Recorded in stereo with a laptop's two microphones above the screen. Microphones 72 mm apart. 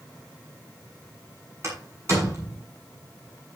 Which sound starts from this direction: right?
A door slam, at 1.6 s.